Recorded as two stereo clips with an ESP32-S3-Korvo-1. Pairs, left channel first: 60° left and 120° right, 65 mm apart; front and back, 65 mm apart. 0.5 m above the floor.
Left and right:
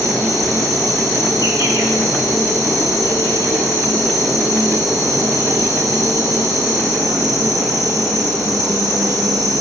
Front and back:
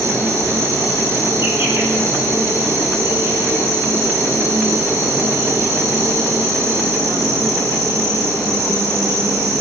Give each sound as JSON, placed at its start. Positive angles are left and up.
{"t": 0.0, "sound": "an insect", "azimuth_deg": -140, "distance_m": 5.0}